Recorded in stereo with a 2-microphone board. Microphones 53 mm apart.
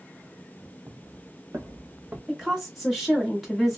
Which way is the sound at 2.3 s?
5° right (ahead or behind).